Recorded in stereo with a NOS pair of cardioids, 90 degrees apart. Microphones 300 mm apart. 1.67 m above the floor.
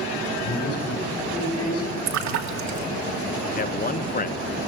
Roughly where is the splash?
Ahead right.